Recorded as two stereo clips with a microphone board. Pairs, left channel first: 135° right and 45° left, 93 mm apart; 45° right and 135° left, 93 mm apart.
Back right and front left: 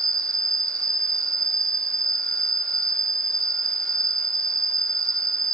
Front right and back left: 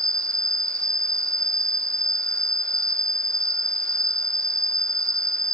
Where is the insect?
90° left, 1.9 m.